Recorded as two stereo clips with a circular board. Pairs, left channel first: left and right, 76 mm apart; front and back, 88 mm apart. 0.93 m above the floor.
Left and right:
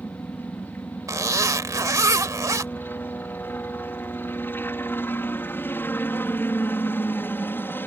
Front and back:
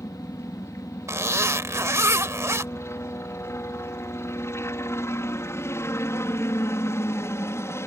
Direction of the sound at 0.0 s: 45° left.